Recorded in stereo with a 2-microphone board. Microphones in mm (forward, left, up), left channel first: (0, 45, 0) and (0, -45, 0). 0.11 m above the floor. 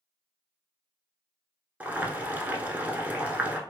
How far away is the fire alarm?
No fire alarm in this recording.